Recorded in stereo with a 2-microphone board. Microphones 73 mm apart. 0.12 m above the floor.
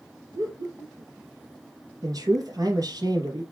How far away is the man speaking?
About 3 m.